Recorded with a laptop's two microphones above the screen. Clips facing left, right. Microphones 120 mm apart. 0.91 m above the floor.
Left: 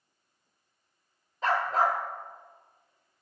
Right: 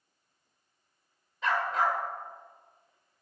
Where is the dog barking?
40° left (ahead or behind), 0.8 m.